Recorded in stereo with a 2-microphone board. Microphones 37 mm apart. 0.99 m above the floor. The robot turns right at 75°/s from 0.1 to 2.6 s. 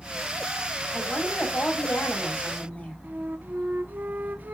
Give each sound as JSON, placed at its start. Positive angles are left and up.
{"t": 0.9, "sound": "a woman speaking", "azimuth_deg": 20, "distance_m": 5.5}
{"t": 3.0, "sound": "a flute", "side_deg": -55, "distance_m": 0.8}